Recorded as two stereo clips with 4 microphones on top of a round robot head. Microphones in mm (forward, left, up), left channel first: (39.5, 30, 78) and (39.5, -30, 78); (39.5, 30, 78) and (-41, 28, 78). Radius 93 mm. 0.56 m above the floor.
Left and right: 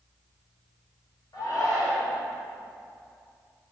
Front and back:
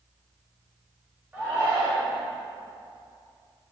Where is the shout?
115° left, 2.5 m.